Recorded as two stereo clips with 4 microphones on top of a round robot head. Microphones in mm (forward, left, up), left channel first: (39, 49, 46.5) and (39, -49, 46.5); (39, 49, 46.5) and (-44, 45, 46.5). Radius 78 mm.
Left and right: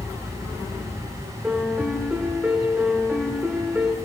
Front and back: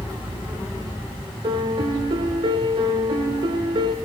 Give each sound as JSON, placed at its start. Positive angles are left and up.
{"t": 1.4, "sound": "a piano", "azimuth_deg": -170, "distance_m": 1.5}